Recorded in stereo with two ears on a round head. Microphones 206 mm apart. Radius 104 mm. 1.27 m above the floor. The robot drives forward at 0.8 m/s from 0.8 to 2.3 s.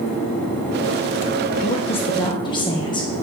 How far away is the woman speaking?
About 1.0 m.